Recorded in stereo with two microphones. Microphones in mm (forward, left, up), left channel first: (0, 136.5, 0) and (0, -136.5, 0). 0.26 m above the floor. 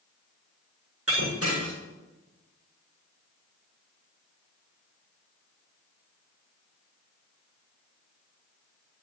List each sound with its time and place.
1.1 s breaking glass: 55° right (ahead or behind), 4.5 m